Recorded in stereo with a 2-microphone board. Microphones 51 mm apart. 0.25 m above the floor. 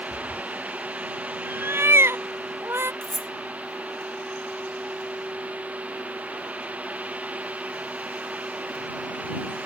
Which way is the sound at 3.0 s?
15° left (ahead or behind).